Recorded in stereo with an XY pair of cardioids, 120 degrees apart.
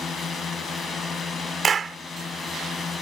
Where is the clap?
35° right.